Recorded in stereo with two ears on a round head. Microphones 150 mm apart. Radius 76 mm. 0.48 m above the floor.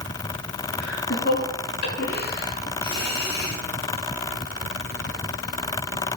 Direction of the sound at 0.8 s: 60° left (ahead or behind).